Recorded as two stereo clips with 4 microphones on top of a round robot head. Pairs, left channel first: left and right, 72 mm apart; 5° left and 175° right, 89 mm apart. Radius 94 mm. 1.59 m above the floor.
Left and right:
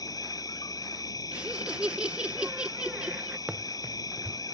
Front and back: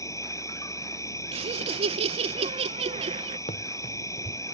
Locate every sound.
0.0 s an insect: 55° left
1.3 s laughter: 170° right
3.5 s running footsteps: 15° right